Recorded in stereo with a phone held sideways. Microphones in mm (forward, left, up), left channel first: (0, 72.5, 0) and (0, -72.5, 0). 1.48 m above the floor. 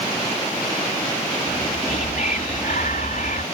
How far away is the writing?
No writing in this recording.